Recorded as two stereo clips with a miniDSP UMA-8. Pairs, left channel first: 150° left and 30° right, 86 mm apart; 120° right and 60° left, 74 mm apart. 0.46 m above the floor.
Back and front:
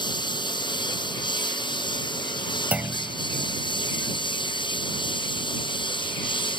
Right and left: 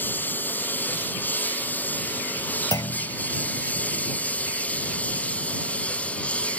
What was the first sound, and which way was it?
A lawn mower, 175° left.